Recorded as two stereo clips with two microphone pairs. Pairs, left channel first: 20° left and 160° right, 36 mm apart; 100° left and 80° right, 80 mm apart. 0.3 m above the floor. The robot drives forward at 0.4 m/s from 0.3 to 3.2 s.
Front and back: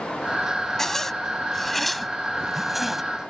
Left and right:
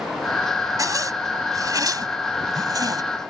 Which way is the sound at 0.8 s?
50° right.